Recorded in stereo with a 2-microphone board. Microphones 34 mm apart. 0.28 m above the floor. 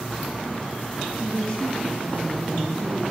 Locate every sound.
1.1 s a woman speaking: 25° left (ahead or behind), 6 m